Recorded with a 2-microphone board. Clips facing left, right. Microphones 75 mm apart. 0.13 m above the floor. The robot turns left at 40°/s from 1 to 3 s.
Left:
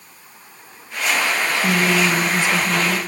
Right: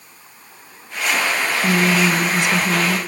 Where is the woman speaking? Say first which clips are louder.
Right 2 dB; 5° right (ahead or behind), 1.6 m; by 3.0 s 25° right (ahead or behind), 1.6 m.